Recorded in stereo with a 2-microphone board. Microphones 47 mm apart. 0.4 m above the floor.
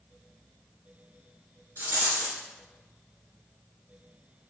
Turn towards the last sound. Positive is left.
turn(degrees=-50)  # may be behind; listen again after turning